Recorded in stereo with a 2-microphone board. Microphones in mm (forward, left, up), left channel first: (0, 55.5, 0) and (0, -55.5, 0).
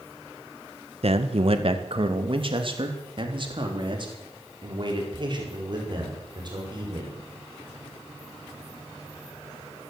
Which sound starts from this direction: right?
A man speaking, at 1.0 s.